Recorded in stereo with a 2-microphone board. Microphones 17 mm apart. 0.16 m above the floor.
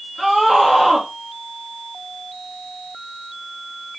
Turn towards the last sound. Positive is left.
turn(degrees=-25)  # may be behind; listen again after turning